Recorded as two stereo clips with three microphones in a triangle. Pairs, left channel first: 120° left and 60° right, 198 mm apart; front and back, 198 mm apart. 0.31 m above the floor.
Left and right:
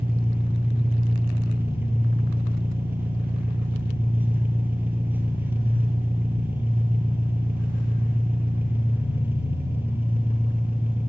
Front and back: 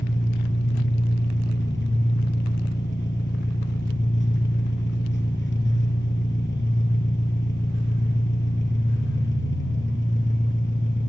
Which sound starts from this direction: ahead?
An engine running, at 0.0 s.